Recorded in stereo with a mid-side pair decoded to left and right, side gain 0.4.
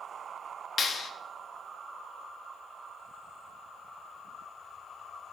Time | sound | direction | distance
0.8 | a clap | 50° left | 0.7 m